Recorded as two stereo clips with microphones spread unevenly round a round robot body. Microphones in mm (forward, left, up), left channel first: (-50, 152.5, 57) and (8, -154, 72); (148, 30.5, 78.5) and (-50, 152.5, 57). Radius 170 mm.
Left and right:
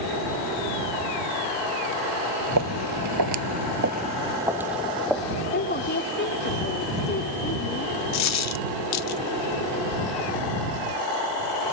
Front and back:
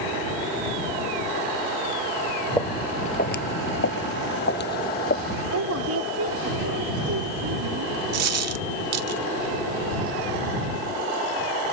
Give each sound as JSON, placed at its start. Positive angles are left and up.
{"t": 2.6, "sound": "footsteps", "azimuth_deg": -115}
{"t": 5.5, "sound": "a woman speaking", "azimuth_deg": 155}
{"t": 8.1, "sound": "a dropped coin", "azimuth_deg": 140}